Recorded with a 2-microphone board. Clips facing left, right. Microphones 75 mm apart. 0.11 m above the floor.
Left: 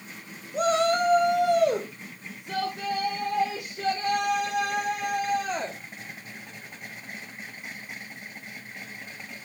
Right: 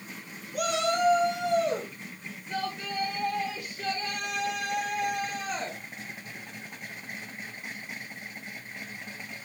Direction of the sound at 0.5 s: 25° left (ahead or behind).